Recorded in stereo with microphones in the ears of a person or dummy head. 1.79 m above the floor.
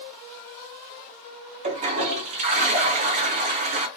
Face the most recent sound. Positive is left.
turn(degrees=-40)  # may be behind; listen again after turning